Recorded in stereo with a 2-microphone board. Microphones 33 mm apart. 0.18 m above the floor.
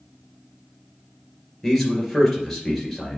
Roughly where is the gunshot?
I don't hear a gunshot.